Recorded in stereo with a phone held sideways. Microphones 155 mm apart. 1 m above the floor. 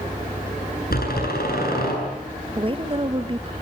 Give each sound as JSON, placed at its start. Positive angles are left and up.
{"t": 0.9, "sound": "a door slam", "side_deg": 80, "distance_m": 8.5}
{"t": 2.5, "sound": "a woman speaking", "side_deg": -35, "distance_m": 1.3}